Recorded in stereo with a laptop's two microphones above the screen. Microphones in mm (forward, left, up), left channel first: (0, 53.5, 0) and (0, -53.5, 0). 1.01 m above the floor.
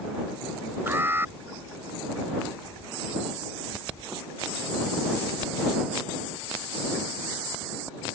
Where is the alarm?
20° right (ahead or behind).